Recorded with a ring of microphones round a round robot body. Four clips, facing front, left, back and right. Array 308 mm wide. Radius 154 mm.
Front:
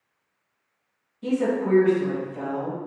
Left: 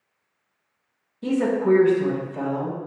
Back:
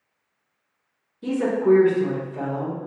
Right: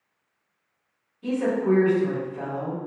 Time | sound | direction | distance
1.2 | a woman speaking | 95° left | 2.0 m